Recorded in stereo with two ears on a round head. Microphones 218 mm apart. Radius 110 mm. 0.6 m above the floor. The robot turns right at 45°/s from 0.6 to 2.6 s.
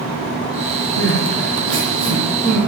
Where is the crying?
80° right, 9.5 m; by 2.6 s 5° right (ahead or behind), 9.5 m.